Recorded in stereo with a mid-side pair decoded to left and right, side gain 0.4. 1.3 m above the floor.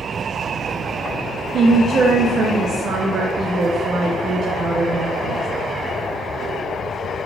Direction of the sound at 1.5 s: 65° right.